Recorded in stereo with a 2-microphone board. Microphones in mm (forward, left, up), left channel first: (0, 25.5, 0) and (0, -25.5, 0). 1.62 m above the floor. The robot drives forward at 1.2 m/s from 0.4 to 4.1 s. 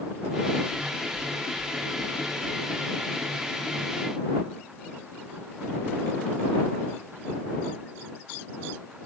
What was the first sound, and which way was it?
Knocking, 70° right (ahead or behind).